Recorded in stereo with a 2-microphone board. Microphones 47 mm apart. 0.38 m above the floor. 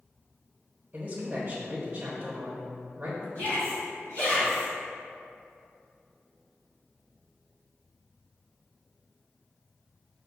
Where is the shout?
50° left (ahead or behind), 1.7 m.